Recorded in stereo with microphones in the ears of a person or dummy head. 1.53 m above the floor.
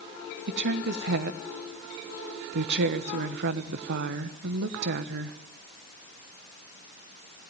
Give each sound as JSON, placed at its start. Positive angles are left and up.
{"t": 0.5, "sound": "a woman speaking", "side_deg": -55, "distance_m": 1.1}